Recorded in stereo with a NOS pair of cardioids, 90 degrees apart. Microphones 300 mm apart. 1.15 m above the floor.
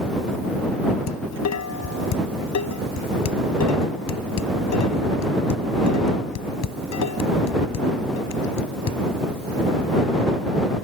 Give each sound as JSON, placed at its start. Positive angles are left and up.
{"t": 1.1, "sound": "dishes clattering", "azimuth_deg": 60}